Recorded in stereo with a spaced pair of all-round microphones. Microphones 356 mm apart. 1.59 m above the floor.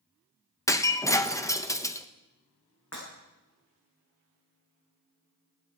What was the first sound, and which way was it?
Breaking glass, 10° left (ahead or behind).